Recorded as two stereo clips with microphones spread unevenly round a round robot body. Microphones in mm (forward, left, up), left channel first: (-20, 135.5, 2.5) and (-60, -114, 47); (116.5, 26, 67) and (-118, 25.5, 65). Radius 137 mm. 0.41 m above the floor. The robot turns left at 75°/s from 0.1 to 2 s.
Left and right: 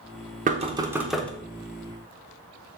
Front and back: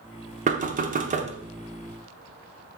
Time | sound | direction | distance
0.5 | knocking | 150° right | 0.7 m